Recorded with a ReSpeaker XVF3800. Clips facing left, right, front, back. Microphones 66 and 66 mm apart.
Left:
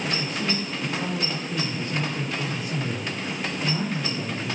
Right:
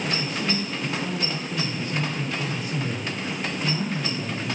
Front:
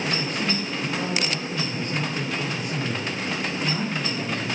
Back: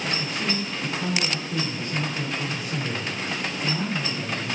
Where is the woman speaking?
40° left, 9.5 m; by 4.6 s 55° left, 9 m.